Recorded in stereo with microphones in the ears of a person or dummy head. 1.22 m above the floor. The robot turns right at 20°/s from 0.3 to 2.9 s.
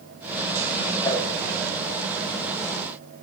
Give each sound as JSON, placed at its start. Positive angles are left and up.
{"t": 1.0, "sound": "a whoosh", "side_deg": 20, "distance_m": 3.5}